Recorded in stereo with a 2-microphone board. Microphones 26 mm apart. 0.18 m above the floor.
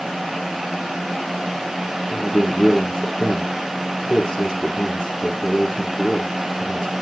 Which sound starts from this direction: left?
A man speaking, at 2.1 s.